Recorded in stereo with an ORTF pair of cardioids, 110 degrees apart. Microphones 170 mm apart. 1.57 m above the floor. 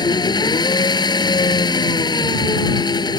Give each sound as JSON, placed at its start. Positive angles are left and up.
{"t": 0.0, "sound": "an engine running", "azimuth_deg": 25}